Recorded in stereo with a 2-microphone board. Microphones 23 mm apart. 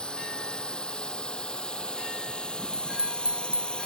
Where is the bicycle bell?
55° right (ahead or behind).